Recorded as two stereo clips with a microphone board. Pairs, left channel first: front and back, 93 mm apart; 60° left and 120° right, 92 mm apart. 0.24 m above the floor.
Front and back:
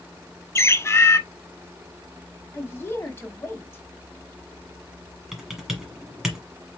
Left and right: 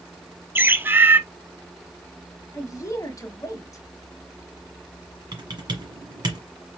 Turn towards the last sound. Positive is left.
turn(degrees=-95)